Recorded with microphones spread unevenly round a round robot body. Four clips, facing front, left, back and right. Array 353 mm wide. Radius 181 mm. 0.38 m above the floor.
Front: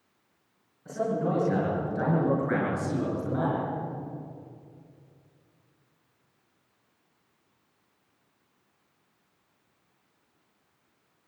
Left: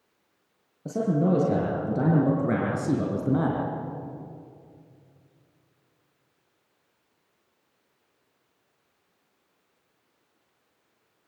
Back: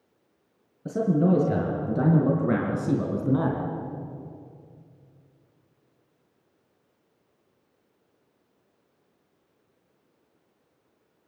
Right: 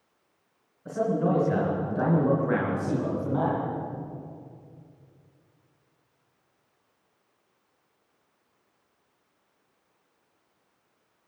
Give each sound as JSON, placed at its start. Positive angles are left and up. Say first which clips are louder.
{"t": 0.8, "sound": "a man speaking", "louder": "left 1 dB, back 6 dB", "azimuth_deg": 145, "distance_m": 6.5}